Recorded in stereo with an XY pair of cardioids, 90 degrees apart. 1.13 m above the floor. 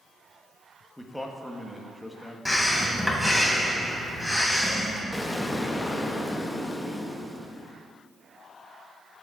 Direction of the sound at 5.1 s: 15° left.